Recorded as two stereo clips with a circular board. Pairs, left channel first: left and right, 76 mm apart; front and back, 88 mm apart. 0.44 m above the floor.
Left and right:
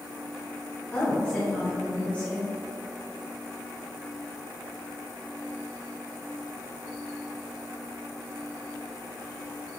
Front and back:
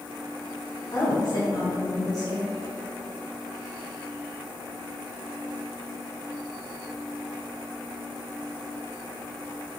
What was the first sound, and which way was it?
A woman speaking, 20° left.